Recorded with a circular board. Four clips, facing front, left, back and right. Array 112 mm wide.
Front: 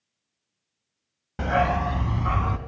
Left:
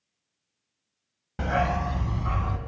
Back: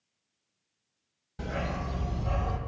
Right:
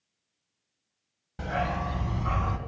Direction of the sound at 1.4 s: 30° left.